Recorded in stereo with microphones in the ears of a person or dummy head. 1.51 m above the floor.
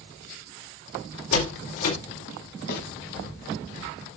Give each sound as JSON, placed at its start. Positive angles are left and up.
{"t": 1.3, "sound": "a door slam", "side_deg": 80, "distance_m": 4.5}
{"t": 2.7, "sound": "a snare drum", "side_deg": 65, "distance_m": 3.0}